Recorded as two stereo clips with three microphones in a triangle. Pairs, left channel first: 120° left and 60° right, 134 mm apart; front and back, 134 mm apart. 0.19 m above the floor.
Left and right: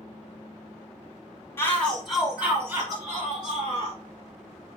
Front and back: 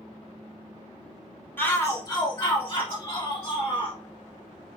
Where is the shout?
60° left, 1.6 m; by 4.0 s 25° right, 2.5 m.